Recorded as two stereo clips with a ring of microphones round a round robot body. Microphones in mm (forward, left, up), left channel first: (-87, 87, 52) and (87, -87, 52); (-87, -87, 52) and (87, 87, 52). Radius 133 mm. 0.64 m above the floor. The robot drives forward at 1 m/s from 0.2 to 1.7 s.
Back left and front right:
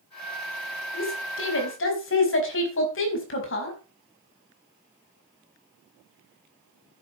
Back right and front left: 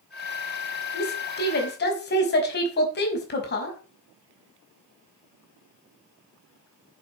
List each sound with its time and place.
0.9 s a woman speaking: 175° left, 4 m